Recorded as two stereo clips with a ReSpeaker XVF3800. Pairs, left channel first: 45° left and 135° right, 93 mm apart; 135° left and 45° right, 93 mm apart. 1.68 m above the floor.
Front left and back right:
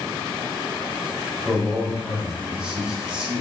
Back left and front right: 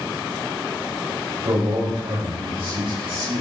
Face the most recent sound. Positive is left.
turn(degrees=-55)